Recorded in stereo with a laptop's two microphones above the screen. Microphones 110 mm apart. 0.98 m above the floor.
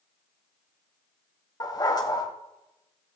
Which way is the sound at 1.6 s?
35° left (ahead or behind).